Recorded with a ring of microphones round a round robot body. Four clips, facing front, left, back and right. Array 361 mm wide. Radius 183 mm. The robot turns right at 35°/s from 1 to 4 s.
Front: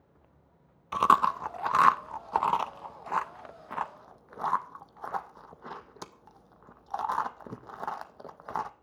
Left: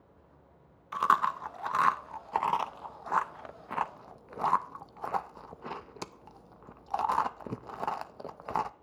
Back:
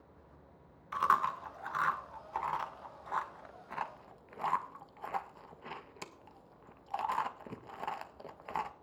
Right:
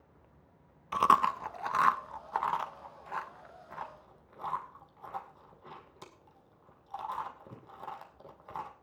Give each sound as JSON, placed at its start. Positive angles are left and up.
{"t": 0.9, "sound": "chewing", "azimuth_deg": -30, "distance_m": 0.6}